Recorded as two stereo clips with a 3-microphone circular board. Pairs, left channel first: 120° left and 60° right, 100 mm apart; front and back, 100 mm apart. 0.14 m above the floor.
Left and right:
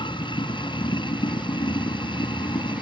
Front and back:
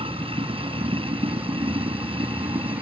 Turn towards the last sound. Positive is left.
turn(degrees=155)